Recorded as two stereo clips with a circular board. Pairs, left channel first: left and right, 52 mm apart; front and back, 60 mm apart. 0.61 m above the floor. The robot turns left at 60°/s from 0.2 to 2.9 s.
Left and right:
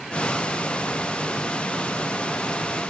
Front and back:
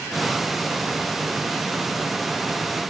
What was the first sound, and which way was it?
Only background noise.